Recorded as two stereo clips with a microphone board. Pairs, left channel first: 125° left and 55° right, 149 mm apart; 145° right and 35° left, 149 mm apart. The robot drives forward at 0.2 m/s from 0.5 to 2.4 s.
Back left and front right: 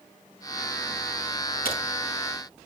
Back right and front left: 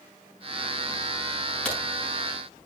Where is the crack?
135° left, 7.5 m.